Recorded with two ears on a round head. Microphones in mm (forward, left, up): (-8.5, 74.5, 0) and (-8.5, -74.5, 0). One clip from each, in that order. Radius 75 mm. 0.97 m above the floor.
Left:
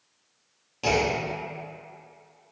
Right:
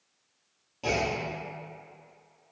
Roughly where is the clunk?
Left.